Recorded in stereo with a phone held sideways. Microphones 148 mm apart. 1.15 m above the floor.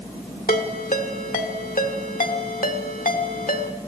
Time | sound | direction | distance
0.5 | a ringtone | 75° left (ahead or behind) | 1.7 m